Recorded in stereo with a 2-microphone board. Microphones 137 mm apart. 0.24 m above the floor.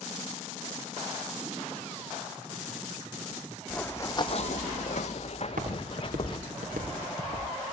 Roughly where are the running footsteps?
Centre.